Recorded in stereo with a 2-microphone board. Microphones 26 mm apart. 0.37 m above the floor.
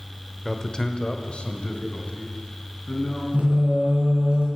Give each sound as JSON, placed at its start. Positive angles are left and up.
{"t": 0.5, "sound": "a man speaking", "side_deg": 10, "distance_m": 0.8}
{"t": 3.3, "sound": "singing", "side_deg": -60, "distance_m": 4.0}